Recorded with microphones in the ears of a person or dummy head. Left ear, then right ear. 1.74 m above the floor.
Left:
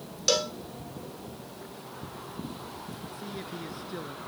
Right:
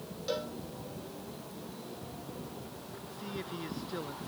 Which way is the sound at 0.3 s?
75° left (ahead or behind).